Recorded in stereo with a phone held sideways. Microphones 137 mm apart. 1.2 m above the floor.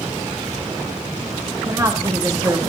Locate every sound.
1.7 s a woman speaking: 25° right (ahead or behind), 2.5 m